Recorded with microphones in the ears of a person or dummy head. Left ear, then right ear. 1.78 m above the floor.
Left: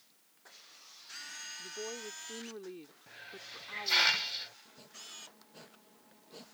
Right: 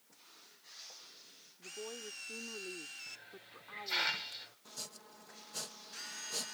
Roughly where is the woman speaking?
Centre.